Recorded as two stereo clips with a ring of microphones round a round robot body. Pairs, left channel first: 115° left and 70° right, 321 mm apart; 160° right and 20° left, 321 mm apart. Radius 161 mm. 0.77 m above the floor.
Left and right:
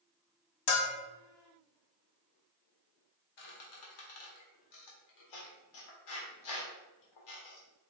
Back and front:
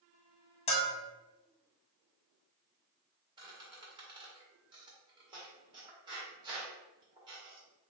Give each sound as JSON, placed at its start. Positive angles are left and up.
{"t": 0.7, "sound": "a bell", "azimuth_deg": 135, "distance_m": 0.8}
{"t": 3.4, "sound": "a squeak", "azimuth_deg": 100, "distance_m": 1.5}